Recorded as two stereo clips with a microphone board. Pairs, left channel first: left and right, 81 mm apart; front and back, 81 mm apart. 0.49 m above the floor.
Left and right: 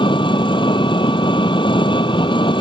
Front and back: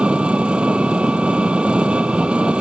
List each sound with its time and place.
0.0 s an engine running: 100° left